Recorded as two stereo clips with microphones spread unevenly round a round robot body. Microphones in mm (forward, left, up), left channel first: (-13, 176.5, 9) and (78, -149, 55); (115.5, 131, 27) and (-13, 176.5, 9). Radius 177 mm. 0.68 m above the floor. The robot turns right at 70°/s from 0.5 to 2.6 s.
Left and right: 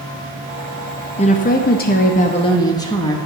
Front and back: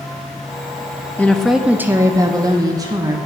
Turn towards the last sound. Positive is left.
turn(degrees=165)